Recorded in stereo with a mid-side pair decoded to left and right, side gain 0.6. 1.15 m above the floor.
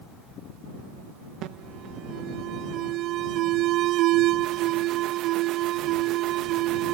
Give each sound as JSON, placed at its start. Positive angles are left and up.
{"t": 1.4, "sound": "an alarm", "azimuth_deg": -60}